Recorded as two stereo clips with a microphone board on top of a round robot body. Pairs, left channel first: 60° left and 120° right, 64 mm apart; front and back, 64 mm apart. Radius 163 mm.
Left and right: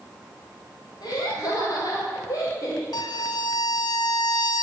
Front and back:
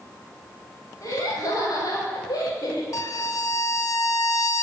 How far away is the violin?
About 0.7 m.